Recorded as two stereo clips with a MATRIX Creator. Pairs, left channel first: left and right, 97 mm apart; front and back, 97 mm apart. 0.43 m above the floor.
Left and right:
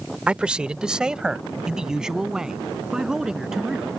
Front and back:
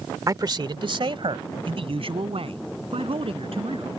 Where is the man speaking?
160° right; by 3.9 s 175° right.